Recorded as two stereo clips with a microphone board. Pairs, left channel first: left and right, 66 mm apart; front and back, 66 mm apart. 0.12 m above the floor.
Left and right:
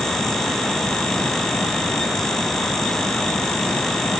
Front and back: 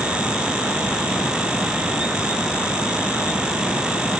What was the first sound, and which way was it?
Only background noise.